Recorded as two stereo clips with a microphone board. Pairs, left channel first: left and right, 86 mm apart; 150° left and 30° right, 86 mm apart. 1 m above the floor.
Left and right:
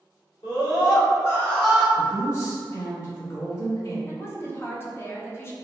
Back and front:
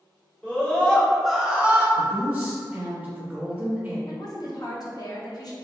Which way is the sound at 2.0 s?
45° left.